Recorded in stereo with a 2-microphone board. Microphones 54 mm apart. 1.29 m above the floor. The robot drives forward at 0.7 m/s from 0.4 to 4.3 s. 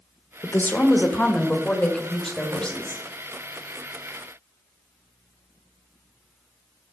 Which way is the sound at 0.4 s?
40° left (ahead or behind).